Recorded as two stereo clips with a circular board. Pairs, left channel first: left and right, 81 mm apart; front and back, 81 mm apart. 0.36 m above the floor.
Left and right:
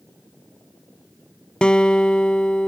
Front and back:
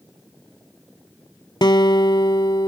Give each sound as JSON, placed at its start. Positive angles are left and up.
{"t": 1.6, "sound": "a guitar", "azimuth_deg": 10}